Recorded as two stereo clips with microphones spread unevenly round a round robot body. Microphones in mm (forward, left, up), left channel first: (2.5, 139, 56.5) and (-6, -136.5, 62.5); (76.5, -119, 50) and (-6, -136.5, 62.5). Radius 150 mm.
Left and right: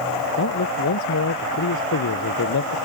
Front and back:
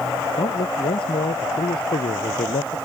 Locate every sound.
0.4 s a man speaking: 45° left